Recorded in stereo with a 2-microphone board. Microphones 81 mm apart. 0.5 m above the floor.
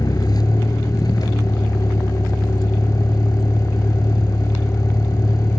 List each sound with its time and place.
0.0 s a vehicle: 55° left (ahead or behind)